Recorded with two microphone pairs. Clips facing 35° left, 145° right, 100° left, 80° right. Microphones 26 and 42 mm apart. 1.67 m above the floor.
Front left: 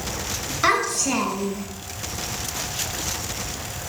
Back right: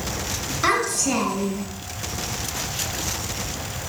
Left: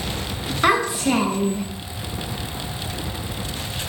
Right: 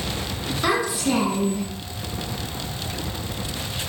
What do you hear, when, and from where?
0.6 s a child speaking: 100° left, 1.3 m; by 1.7 s 105° left, 0.9 m